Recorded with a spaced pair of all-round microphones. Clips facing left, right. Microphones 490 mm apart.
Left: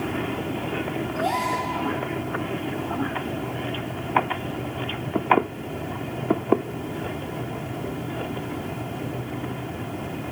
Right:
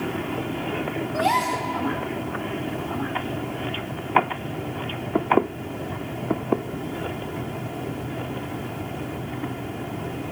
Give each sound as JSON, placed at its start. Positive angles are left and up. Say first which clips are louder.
{"t": 1.1, "sound": "a gasp", "louder": "right 1 dB", "side_deg": -80, "distance_m": 1.4}